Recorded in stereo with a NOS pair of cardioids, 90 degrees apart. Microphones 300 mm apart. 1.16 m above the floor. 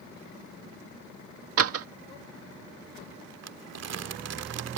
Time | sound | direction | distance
1.6 | a door slam | 50° right | ?
3.4 | crumpling | 55° right | ?